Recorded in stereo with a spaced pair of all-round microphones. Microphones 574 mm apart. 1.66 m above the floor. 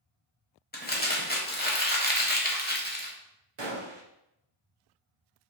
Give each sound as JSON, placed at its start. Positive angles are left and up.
{"t": 0.7, "sound": "crumpling", "side_deg": 15, "distance_m": 0.9}
{"t": 3.6, "sound": "a gunshot", "side_deg": -50, "distance_m": 0.7}